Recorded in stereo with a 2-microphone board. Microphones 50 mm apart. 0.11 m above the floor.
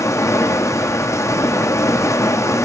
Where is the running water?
85° left, 0.9 m.